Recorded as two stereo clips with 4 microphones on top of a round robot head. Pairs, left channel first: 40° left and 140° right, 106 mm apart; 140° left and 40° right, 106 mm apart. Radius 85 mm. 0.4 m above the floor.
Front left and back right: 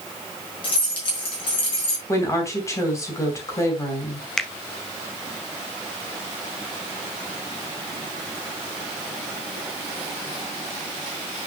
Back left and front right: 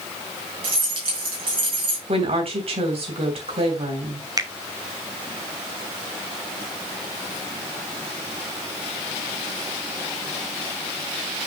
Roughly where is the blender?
No blender in this recording.